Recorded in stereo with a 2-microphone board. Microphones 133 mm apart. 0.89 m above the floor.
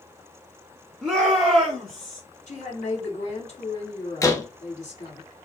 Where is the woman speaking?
60° left (ahead or behind), 2.5 m.